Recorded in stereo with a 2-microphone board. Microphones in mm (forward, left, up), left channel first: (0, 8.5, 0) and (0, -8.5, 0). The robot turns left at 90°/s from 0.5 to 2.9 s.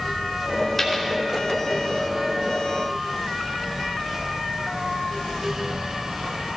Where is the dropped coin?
20° left (ahead or behind), 3 m; by 1.1 s 5° right (ahead or behind), 3 m.